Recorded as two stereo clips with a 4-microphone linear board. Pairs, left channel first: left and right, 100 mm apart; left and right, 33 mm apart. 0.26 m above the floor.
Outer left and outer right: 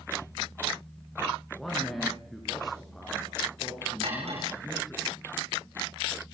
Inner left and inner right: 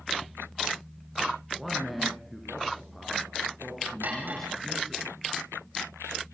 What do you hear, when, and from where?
1.6 s a man speaking: 5° left (ahead or behind), 4 m
4.0 s cutlery clinking: 85° right, 9.5 m